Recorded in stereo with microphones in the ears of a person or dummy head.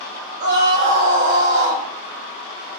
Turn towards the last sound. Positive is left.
turn(degrees=-65)  # may be behind; listen again after turning